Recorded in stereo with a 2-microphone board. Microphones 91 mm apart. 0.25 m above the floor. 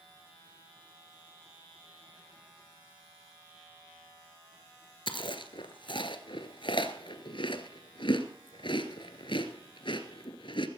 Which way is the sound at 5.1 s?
70° left (ahead or behind).